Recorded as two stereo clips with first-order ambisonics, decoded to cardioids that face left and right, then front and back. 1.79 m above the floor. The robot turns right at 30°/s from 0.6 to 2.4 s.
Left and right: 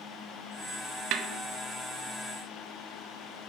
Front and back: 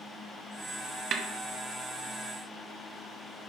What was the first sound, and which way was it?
A snare drum, 125° right.